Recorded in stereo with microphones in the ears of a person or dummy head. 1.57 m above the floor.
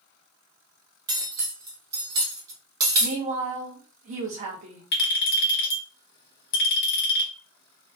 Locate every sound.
1.1 s cutlery clinking: 15° right (ahead or behind), 0.8 m
3.0 s a woman speaking: 40° right (ahead or behind), 0.6 m
4.9 s a clink: 60° left (ahead or behind), 1.1 m